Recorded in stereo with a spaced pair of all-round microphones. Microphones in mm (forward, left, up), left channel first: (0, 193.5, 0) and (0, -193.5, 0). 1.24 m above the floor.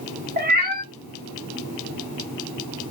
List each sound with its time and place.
0.4 s a cat meowing: 25° right (ahead or behind), 0.8 m